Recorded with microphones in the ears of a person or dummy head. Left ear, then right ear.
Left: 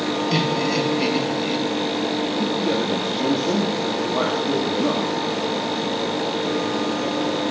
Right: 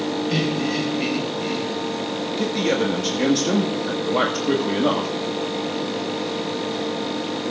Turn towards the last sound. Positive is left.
turn(degrees=-80)